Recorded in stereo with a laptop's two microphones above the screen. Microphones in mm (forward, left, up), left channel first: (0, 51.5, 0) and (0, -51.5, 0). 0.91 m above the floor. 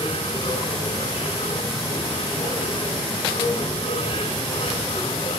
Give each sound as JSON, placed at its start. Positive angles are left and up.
{"t": 0.0, "sound": "a machine running", "side_deg": 80, "distance_m": 5.5}